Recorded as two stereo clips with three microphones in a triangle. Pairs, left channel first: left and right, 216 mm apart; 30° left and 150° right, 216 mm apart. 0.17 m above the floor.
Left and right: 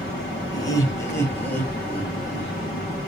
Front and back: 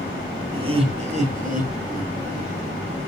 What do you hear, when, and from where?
0.5 s laughter: 155° left, 1.4 m; by 2.5 s 175° left, 2 m